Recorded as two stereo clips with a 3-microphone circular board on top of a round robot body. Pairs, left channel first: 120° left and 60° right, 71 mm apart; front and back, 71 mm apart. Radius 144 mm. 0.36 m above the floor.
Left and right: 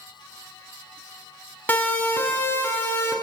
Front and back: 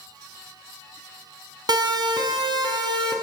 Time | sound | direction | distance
1.7 | a siren | 170° right | 5.5 m